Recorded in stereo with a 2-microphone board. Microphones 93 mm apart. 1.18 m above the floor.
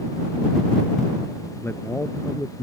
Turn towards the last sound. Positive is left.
turn(degrees=25)  # may be behind; listen again after turning